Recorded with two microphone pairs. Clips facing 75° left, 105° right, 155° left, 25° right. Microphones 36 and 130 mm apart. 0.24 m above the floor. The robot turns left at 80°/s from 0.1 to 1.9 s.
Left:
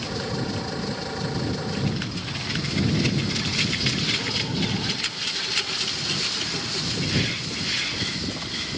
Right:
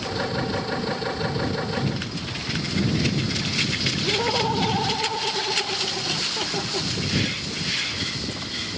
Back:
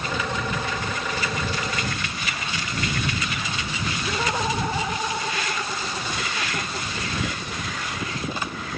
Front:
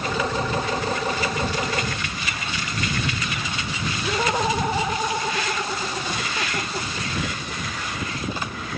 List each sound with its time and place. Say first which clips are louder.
4.0 s laughter: right 4 dB, front 4 dB; 95° right